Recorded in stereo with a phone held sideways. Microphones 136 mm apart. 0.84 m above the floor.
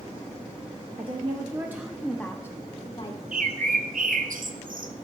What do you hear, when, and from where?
1.0 s a woman speaking: 45° right (ahead or behind), 0.8 m; by 3.2 s 40° left (ahead or behind), 1.0 m
3.3 s a bird: 85° right, 0.6 m